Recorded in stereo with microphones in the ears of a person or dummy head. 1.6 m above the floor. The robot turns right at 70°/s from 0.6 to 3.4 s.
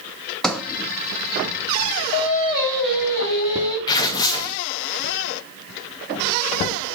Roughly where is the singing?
Behind left.